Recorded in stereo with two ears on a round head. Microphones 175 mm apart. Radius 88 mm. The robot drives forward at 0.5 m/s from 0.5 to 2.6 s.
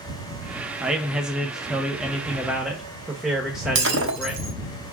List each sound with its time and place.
0.8 s a man speaking: 5° right (ahead or behind), 0.9 m; by 4.5 s centre (ahead or behind), 1.0 m
3.8 s breaking glass: 70° right (ahead or behind), 1.0 m